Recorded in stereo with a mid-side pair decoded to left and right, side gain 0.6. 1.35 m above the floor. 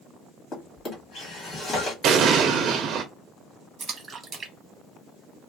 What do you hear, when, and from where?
0.5 s a drawer: 40° left, 1.5 m
2.0 s an explosion: 50° right, 0.6 m
3.8 s a splash: 30° right, 0.8 m